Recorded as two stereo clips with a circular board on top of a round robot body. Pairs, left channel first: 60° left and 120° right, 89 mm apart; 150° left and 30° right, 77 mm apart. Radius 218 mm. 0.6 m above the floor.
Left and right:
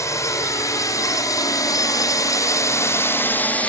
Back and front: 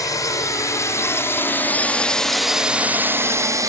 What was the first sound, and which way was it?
A drone, 110° left.